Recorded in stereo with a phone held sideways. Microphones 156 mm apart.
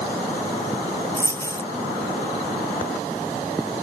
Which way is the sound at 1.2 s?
15° left (ahead or behind).